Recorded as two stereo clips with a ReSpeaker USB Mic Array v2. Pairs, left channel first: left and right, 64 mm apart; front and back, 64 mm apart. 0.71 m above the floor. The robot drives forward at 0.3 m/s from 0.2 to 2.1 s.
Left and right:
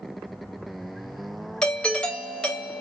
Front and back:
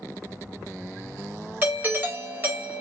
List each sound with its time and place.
1.6 s a doorbell: 150° left, 1.0 m; by 2.8 s 155° left, 1.1 m